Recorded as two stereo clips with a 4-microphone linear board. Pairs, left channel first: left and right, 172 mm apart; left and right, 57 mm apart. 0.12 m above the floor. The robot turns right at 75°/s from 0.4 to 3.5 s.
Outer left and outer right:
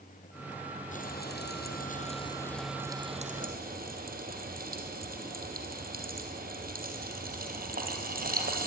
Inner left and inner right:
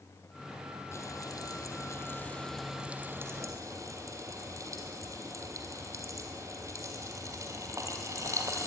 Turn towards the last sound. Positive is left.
turn(degrees=-60)  # may be behind; listen again after turning